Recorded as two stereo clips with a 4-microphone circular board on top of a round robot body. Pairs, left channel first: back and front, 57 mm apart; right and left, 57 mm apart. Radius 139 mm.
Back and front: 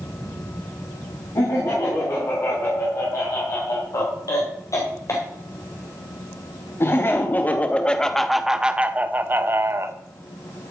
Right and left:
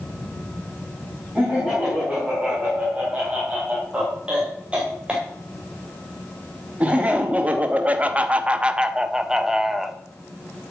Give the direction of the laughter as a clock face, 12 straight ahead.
6 o'clock.